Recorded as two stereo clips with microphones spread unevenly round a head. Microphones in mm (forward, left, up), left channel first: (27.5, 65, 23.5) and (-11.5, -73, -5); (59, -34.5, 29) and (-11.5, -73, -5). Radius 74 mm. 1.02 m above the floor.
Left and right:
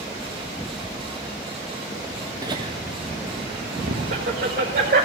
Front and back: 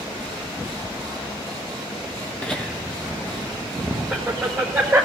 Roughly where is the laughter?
Right.